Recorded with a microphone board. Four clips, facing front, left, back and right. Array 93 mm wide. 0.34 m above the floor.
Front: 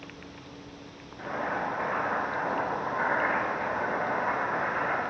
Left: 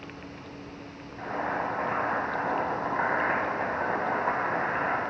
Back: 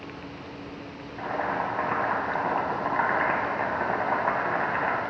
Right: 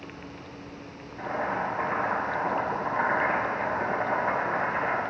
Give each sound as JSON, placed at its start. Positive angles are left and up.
{"t": 1.2, "sound": "boiling", "azimuth_deg": -175, "distance_m": 1.0}